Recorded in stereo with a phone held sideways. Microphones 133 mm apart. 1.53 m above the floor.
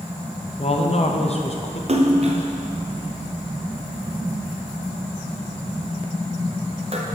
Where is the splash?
50° right (ahead or behind), 0.8 m.